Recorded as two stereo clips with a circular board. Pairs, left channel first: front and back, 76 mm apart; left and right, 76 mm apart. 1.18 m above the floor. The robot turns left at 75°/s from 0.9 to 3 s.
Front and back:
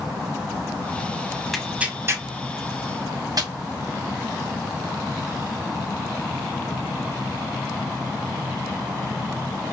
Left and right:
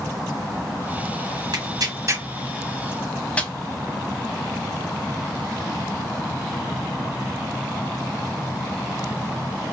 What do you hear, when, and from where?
1.5 s tearing paper: 90° right, 0.9 m; by 3.5 s 160° left, 0.9 m